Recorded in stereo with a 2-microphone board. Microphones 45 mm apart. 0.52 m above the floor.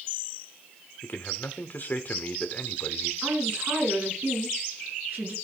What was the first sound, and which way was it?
A man speaking, 45° left (ahead or behind).